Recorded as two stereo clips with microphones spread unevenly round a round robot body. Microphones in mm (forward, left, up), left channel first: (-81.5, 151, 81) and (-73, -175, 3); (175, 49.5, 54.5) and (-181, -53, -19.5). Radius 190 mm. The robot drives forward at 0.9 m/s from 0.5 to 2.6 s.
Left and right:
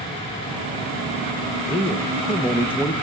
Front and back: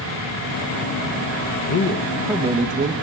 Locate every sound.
1.7 s a man speaking: 15° right, 0.8 m; by 2.9 s 165° right, 0.9 m